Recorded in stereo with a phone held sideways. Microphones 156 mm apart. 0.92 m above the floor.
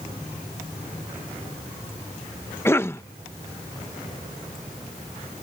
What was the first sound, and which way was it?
A cough, 15° left (ahead or behind).